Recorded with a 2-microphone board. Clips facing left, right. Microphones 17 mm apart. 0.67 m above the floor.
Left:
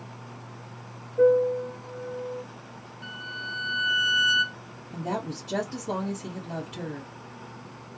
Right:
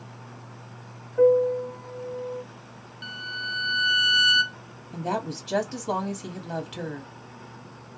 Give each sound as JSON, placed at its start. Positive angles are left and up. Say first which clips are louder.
{"t": 1.2, "sound": "a piano", "louder": "right 1 dB", "side_deg": -70, "distance_m": 1.3}
{"t": 3.0, "sound": "a violin", "louder": "right 3 dB", "side_deg": -65, "distance_m": 0.5}
{"t": 4.9, "sound": "a woman speaking", "louder": "right 2 dB", "side_deg": -45, "distance_m": 1.4}